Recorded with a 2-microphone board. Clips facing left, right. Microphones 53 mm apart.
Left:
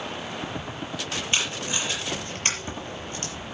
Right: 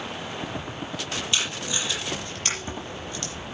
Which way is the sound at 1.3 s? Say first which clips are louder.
Left 2 dB; 35° left (ahead or behind).